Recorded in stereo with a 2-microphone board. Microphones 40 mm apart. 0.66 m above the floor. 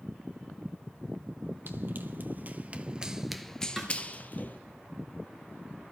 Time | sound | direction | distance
1.7 | running footsteps | 60° right (ahead or behind) | 1.2 m
3.8 | a snare drum | centre (ahead or behind) | 2.5 m